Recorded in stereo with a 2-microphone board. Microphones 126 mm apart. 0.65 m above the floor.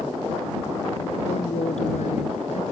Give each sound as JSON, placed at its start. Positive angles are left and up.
{"t": 1.2, "sound": "a woman speaking", "side_deg": 70}